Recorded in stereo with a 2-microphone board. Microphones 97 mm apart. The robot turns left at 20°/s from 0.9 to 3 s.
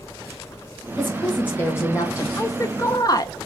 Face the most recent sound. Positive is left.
turn(degrees=40)  # may be behind; listen again after turning